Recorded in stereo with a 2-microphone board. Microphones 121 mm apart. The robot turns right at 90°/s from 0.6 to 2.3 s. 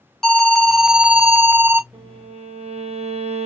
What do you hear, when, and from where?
0.2 s an alarm: 5° left (ahead or behind), 0.7 m; by 1.8 s 20° right (ahead or behind), 0.7 m
1.9 s a violin: 155° right, 1.4 m; by 3.5 s 120° right, 1.4 m